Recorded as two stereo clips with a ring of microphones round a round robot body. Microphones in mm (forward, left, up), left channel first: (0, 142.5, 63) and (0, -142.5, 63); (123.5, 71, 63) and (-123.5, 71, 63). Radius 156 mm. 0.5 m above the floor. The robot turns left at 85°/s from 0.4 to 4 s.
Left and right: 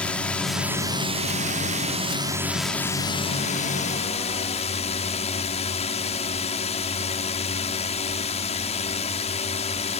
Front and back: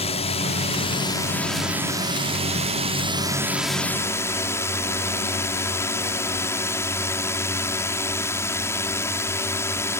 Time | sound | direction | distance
0.0 | a drone | 10° left | ?